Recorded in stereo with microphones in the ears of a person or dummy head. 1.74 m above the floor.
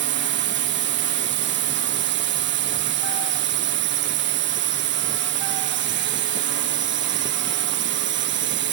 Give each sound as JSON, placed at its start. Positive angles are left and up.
{"t": 0.0, "sound": "a drone", "side_deg": -55}